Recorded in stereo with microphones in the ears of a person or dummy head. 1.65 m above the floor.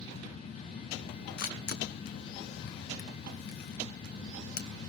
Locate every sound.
1.4 s a camera shutter: 50° left (ahead or behind), 0.8 m